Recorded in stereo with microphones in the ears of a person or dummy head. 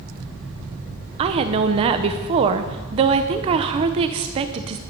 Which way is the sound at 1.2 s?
30° right (ahead or behind).